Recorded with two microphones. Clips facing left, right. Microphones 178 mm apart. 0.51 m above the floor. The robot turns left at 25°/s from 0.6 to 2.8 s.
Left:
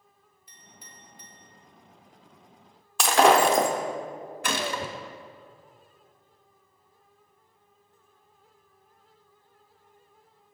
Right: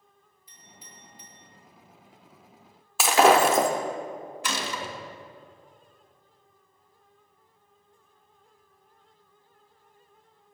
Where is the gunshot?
55° left (ahead or behind), 0.6 m.